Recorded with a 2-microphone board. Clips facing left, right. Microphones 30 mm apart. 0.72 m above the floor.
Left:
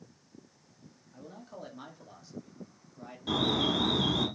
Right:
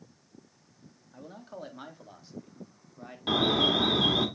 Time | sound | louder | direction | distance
1.1 | a man speaking | right 3 dB | 20° right (ahead or behind) | 1.4 m
3.3 | an alarm | right 4 dB | 40° right (ahead or behind) | 2 m